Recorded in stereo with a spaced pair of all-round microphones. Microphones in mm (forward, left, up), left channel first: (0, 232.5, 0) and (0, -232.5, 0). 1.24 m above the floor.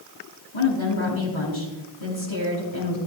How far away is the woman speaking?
About 6 m.